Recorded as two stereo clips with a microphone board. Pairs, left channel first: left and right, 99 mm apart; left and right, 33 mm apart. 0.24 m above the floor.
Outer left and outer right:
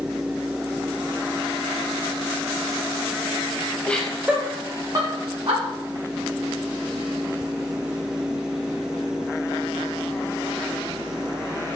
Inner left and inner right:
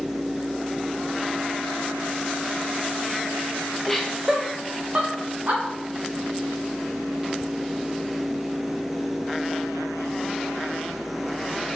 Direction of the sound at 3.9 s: 15° left (ahead or behind).